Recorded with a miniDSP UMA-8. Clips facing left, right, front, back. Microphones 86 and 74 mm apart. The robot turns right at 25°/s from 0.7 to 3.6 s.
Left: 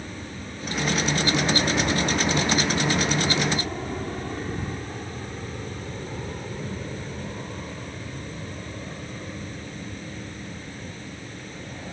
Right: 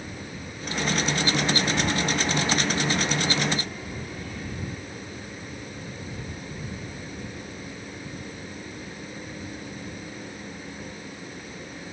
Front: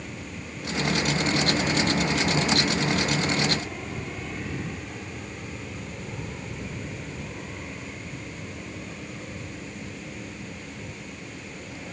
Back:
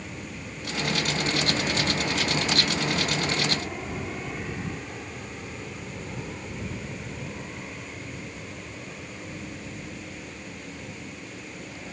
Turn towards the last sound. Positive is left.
turn(degrees=85)